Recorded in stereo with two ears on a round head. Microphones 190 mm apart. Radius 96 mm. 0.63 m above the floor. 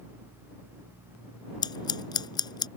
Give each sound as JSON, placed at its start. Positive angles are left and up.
{"t": 1.6, "sound": "scissors", "side_deg": 20}